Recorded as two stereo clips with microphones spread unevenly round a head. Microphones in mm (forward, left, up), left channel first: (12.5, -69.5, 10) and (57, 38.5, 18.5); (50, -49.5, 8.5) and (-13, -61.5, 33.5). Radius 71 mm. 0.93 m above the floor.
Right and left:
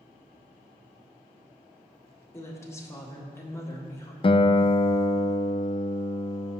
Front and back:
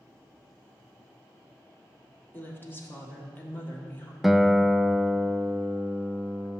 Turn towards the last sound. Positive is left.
turn(degrees=-70)